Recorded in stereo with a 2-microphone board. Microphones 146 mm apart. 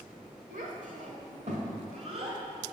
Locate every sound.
0.5 s a child speaking: 70° right (ahead or behind), 1.2 m; by 2.4 s 45° right (ahead or behind), 1.8 m